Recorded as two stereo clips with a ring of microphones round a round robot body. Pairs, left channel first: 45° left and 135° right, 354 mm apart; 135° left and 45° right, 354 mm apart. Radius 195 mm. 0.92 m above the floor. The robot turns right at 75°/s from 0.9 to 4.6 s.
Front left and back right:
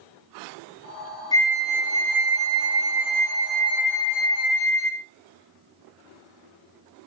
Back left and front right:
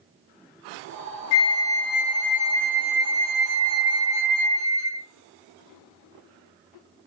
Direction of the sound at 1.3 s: 125° left.